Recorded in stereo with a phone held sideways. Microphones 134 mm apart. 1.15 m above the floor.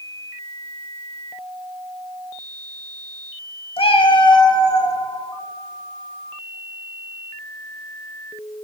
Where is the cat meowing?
45° left (ahead or behind), 0.5 m; by 5.0 s 25° left (ahead or behind), 1.1 m.